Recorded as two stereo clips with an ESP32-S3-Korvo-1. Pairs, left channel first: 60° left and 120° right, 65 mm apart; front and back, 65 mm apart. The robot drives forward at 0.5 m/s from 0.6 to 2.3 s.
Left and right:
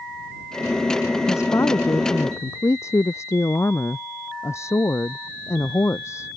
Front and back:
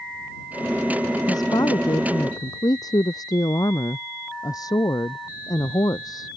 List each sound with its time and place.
1.3 s a woman speaking: 15° left